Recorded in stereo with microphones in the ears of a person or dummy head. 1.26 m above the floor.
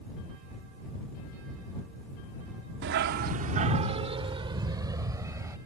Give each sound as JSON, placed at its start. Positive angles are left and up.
{"t": 2.8, "sound": "a dog barking", "side_deg": -60}